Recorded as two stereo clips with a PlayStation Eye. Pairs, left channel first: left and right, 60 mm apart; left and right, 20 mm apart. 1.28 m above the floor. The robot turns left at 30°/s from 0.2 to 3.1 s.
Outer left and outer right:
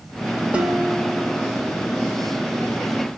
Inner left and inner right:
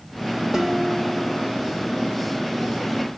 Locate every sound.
0.5 s dishes clattering: 160° right, 1.3 m; by 1.5 s 170° left, 1.3 m